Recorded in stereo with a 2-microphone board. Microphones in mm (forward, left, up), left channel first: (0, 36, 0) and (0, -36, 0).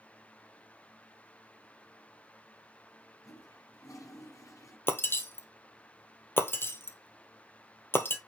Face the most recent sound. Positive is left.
turn(degrees=30)  # may be behind; listen again after turning